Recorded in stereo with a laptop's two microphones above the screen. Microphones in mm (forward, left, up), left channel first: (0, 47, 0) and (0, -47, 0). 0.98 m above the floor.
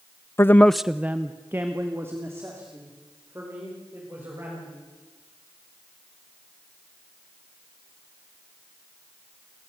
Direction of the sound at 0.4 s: 25° left (ahead or behind).